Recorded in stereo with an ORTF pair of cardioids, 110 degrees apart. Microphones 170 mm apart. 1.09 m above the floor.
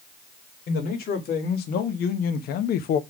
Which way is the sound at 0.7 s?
65° left.